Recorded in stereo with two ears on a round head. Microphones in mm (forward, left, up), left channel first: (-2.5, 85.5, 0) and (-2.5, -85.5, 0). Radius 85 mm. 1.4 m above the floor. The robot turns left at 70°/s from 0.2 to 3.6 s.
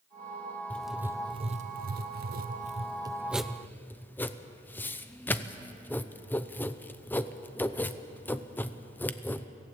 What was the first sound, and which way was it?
Writing, 10° left (ahead or behind).